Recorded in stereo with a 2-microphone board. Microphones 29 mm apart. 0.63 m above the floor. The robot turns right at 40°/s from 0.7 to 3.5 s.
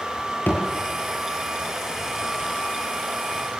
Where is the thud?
75° left (ahead or behind), 6.5 m.